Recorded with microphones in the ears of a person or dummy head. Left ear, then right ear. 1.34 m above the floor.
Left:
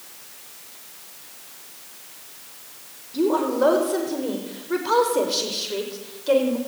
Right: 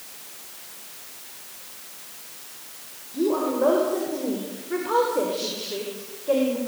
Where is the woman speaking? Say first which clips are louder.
Left 2 dB; 75° left (ahead or behind), 4.5 m; by 6.6 s 85° left, 4.5 m.